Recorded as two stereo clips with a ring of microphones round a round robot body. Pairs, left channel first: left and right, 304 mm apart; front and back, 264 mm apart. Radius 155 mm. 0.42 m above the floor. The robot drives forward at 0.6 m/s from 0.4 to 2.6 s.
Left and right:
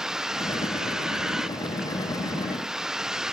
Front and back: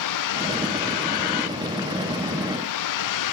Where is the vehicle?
Straight ahead.